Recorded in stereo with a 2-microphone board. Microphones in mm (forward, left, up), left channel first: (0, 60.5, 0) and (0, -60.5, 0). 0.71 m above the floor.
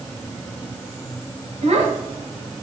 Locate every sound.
1.6 s a child speaking: 70° right (ahead or behind), 2.5 m